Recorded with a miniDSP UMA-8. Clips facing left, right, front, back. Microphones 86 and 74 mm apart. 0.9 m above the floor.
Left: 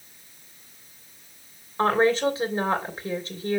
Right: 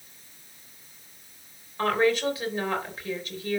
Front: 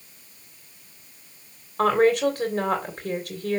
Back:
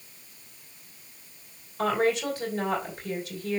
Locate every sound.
1.8 s a woman speaking: 30° left, 3 m